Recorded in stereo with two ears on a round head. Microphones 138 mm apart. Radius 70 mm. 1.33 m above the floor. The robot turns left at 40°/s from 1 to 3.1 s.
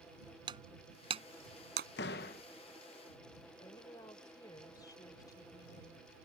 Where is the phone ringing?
No phone ringing in this recording.